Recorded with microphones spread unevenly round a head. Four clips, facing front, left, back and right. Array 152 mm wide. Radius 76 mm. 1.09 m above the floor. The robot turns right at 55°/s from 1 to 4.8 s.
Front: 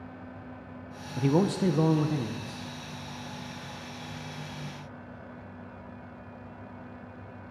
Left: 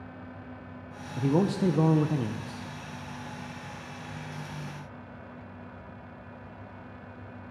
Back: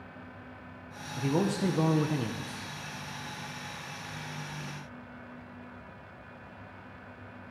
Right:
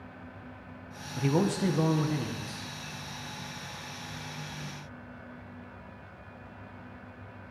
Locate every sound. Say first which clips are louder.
1.2 s a man speaking: left 2 dB, front 4 dB; 30° left, 0.7 m; by 2.7 s 115° left, 0.7 m